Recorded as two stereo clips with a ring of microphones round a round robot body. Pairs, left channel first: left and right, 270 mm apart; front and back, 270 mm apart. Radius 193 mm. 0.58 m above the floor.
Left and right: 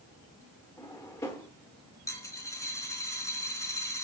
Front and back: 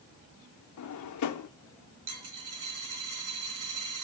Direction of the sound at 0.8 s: 10° left.